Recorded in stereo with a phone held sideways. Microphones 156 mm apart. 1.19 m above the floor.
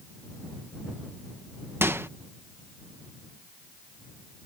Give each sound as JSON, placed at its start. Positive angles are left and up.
{"t": 1.8, "sound": "a microwave", "side_deg": -15}